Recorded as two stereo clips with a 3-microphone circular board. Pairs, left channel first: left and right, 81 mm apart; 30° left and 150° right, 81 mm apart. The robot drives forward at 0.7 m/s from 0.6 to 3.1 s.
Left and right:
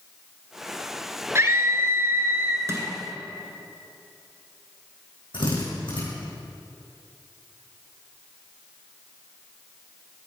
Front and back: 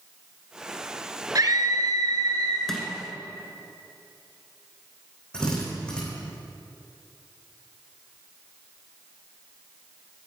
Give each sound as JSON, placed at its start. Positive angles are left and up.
{"t": 1.4, "sound": "a scream", "azimuth_deg": -135, "distance_m": 2.0}
{"t": 2.7, "sound": "crushing", "azimuth_deg": -55, "distance_m": 2.0}
{"t": 5.3, "sound": "a drill", "azimuth_deg": 110, "distance_m": 5.5}